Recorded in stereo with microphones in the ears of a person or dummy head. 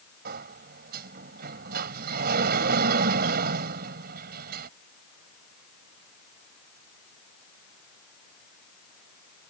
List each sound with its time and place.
0.2 s a sliding door: 55° right (ahead or behind)